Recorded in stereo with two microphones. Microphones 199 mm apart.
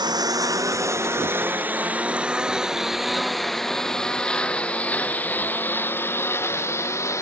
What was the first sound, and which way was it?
A lawn mower, 20° right (ahead or behind).